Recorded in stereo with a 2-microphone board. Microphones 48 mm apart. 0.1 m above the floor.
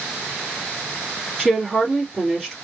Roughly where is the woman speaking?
Centre.